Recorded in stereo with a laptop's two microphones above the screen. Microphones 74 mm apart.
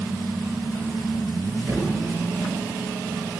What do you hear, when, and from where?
1.7 s a thud: 25° right (ahead or behind), 5.5 m